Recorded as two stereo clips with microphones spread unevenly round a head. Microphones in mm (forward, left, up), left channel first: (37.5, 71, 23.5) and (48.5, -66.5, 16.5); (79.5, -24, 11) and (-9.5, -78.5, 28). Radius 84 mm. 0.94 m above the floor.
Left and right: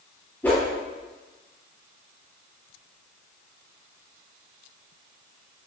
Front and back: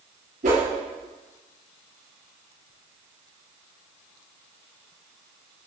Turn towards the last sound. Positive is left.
turn(degrees=175)